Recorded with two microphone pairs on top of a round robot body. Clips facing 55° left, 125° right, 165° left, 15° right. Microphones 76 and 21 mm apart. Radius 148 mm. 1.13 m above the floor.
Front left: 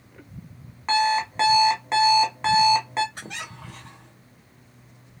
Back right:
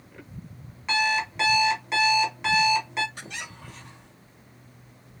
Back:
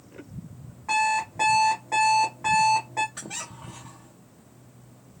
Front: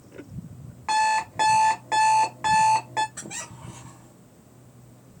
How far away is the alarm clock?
About 1.2 m.